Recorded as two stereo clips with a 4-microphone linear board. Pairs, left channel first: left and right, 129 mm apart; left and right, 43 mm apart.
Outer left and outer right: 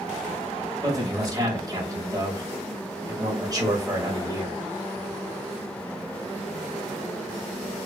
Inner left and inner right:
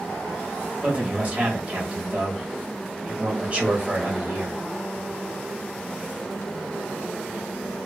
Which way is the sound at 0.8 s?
30° right (ahead or behind).